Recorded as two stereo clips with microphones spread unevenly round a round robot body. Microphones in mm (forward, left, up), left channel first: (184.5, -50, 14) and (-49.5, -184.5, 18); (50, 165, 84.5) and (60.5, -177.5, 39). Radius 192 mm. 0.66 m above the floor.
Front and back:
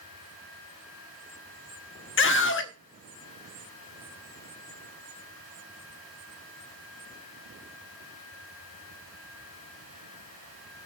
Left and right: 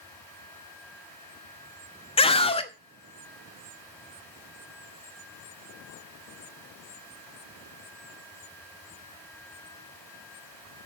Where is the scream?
15° left, 1.1 m.